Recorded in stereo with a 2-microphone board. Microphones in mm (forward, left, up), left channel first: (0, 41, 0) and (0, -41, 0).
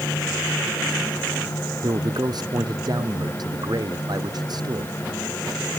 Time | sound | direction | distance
1.8 | a man speaking | 55° right (ahead or behind) | ?